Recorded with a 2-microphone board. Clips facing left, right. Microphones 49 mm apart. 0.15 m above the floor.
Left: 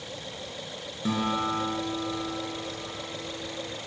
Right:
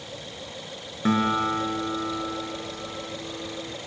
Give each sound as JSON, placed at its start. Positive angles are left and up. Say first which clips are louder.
{"t": 1.1, "sound": "a guitar", "louder": "right 5 dB", "side_deg": -45, "distance_m": 1.8}